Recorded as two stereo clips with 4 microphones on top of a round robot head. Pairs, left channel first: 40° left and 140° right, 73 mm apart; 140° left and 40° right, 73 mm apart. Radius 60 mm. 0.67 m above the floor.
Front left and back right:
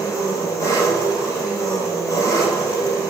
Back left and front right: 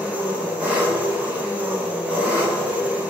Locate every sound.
0.0 s an engine running: 25° left, 1.2 m